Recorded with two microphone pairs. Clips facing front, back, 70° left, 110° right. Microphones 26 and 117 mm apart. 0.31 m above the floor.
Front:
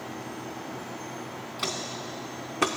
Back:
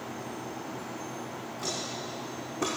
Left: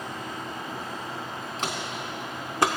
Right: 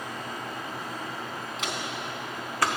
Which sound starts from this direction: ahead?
Footsteps, at 1.6 s.